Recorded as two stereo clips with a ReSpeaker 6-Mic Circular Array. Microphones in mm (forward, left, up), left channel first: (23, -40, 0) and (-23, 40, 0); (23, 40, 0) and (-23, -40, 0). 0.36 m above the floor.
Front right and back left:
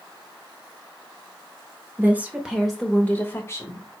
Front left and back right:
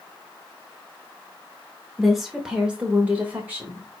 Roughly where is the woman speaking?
Behind left.